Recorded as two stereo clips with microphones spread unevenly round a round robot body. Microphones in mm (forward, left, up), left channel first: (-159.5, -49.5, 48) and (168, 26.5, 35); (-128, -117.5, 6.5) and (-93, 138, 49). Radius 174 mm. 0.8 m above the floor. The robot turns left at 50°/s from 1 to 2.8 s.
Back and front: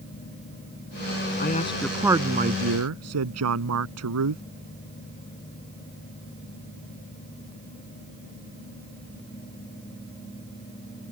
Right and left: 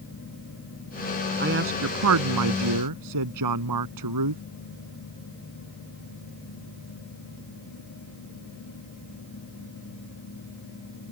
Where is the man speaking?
130° left; by 4.4 s 60° left.